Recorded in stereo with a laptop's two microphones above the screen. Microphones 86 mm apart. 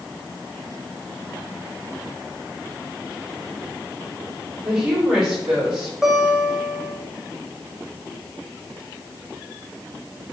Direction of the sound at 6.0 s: 5° right (ahead or behind).